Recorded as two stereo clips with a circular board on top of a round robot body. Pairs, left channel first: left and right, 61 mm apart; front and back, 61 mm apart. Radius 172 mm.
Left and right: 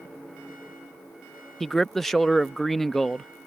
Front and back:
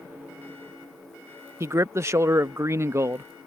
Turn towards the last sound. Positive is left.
turn(degrees=175)